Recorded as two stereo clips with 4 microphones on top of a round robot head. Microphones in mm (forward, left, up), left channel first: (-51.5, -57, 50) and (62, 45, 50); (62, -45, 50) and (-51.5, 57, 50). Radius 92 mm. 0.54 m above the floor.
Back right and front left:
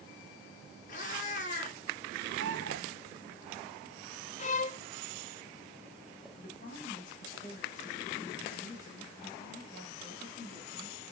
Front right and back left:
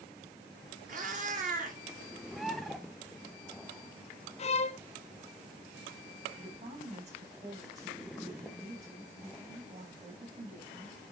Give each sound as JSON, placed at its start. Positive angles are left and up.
{"t": 0.9, "sound": "a cat meowing", "azimuth_deg": 180, "distance_m": 1.9}
{"t": 2.3, "sound": "a bird", "azimuth_deg": 45, "distance_m": 0.8}
{"t": 4.4, "sound": "a violin", "azimuth_deg": -95, "distance_m": 0.5}
{"t": 6.4, "sound": "a woman speaking", "azimuth_deg": -175, "distance_m": 3.5}